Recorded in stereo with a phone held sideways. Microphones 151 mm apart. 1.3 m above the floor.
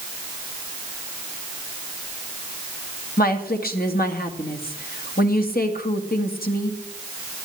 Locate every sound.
3.2 s a woman speaking: 80° left, 2.0 m